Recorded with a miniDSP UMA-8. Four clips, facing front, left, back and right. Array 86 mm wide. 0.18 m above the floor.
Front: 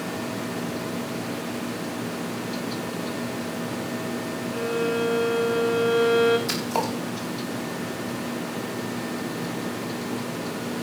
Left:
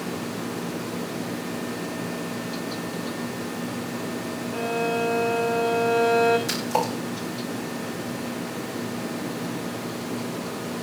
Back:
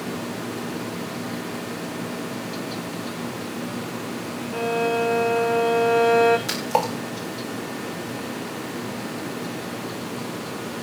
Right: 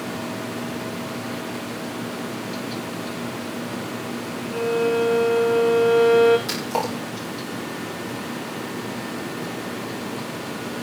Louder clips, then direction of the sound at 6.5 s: Even, back 3 dB; 170° right.